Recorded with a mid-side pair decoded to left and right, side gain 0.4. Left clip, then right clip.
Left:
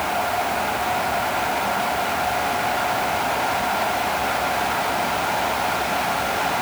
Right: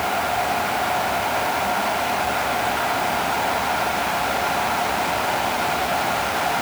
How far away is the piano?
I don't hear a piano.